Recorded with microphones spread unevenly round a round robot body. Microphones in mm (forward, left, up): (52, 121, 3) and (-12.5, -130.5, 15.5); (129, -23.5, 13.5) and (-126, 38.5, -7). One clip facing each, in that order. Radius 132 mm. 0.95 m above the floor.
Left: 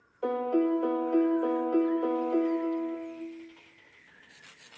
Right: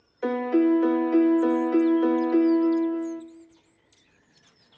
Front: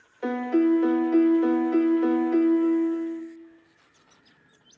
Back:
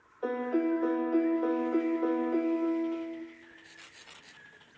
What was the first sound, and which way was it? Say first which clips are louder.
A piano: right 5 dB, front 7 dB; 55° right.